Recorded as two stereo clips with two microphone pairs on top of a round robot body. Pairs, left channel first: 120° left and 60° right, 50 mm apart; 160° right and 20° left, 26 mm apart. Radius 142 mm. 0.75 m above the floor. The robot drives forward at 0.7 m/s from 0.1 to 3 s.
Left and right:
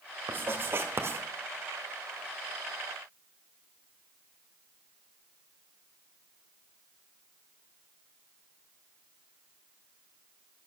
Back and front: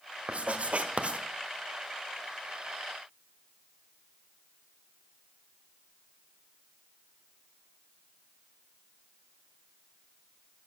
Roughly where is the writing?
Ahead.